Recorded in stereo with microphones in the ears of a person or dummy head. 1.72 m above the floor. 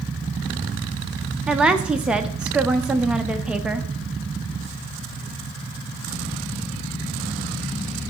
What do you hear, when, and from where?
1.5 s a woman speaking: 5° right (ahead or behind), 0.7 m